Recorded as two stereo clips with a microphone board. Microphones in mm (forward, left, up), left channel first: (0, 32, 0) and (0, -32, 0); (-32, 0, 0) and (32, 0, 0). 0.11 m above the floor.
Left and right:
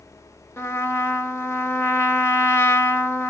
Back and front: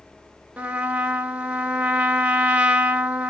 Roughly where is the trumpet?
Ahead left.